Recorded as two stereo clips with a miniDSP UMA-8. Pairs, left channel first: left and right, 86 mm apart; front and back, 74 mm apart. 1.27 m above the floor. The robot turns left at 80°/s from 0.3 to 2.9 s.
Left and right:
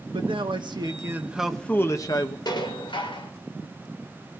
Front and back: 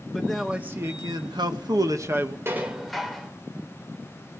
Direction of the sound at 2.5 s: 125° left.